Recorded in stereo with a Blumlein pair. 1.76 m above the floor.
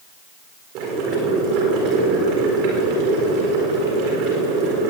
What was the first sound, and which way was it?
Boiling, 40° right.